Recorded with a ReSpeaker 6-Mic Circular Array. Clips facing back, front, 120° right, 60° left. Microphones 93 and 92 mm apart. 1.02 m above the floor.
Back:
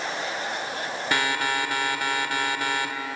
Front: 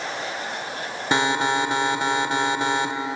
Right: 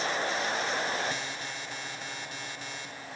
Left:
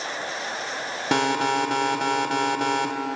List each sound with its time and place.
1.1 s an alarm: 70° left